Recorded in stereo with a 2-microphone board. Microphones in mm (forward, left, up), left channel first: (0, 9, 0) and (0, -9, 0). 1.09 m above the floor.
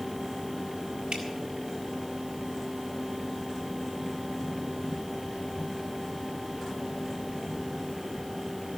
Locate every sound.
1.1 s dripping: 80° right, 3.5 m